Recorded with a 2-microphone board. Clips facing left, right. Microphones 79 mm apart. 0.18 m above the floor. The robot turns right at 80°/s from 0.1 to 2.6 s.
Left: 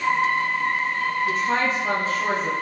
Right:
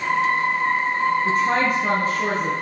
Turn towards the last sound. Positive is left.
turn(degrees=-10)